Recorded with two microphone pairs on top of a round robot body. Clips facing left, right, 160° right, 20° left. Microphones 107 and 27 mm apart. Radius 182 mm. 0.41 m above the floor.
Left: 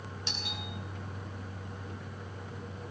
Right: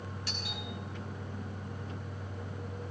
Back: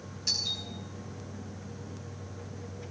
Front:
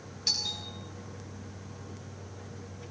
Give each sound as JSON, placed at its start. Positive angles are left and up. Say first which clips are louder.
{"t": 0.3, "sound": "a doorbell", "louder": "left 2 dB, even", "azimuth_deg": 25, "distance_m": 7.5}